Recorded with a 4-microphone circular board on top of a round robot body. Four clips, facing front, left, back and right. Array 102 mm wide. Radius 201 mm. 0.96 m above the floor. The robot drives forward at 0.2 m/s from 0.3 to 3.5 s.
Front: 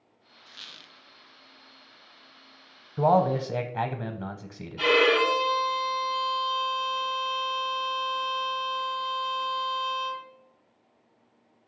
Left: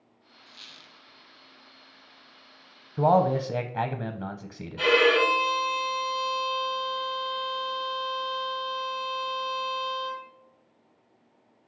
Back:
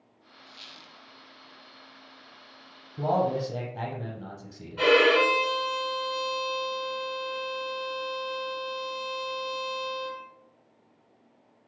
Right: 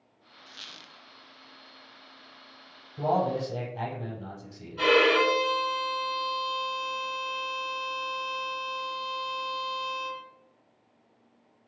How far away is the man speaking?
About 0.8 m.